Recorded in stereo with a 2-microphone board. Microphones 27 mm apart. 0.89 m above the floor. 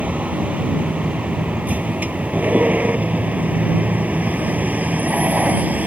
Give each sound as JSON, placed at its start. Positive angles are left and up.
{"t": 0.0, "sound": "a vehicle", "side_deg": -75}